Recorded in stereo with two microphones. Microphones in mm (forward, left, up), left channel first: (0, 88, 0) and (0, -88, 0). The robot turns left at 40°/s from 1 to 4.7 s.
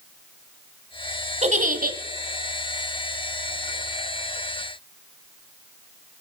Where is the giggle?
40° right (ahead or behind), 1.2 m; by 2.0 s 60° right (ahead or behind), 1.2 m.